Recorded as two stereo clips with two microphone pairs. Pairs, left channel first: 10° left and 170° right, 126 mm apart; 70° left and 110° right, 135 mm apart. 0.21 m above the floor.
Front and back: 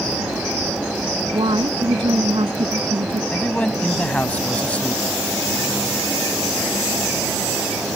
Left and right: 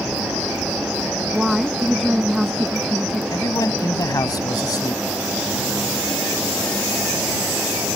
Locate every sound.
1.3 s a woman speaking: 165° left
3.3 s a man speaking: 75° left